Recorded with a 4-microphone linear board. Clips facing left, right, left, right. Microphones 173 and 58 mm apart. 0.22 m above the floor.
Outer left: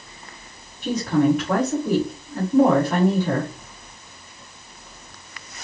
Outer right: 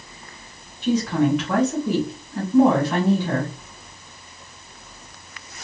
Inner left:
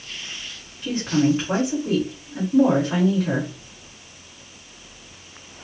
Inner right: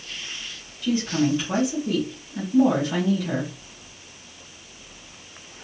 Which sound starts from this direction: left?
A woman speaking, at 0.8 s.